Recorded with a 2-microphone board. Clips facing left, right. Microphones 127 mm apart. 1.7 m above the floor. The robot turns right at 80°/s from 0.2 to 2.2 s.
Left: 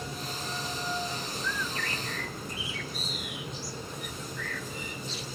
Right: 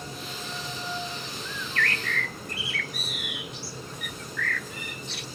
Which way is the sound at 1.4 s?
135° right.